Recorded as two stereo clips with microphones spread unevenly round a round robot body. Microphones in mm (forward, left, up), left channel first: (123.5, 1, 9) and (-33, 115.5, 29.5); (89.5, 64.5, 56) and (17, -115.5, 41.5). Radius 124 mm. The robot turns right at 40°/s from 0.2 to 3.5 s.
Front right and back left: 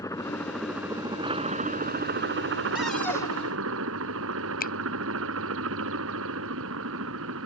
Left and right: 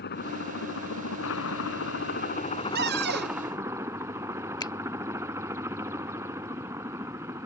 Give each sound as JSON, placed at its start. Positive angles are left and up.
{"t": 0.0, "sound": "a helicopter", "azimuth_deg": 40}
{"t": 2.8, "sound": "a cupboard door", "azimuth_deg": -125}
{"t": 4.6, "sound": "a finger snap", "azimuth_deg": 0}